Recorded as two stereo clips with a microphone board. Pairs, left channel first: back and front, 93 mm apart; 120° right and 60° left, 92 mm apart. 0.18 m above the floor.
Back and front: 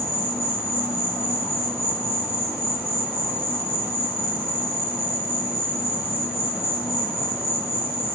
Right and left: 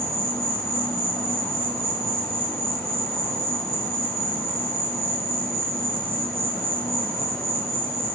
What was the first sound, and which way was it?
An insect, 145° right.